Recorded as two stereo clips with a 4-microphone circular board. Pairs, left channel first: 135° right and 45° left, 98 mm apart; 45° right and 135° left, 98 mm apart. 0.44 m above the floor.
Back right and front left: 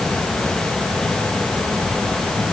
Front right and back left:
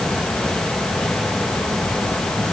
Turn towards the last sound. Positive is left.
No sound to turn to.